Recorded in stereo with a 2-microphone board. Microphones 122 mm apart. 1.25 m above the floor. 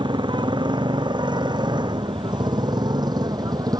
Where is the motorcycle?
35° right (ahead or behind); by 3.8 s 30° right (ahead or behind).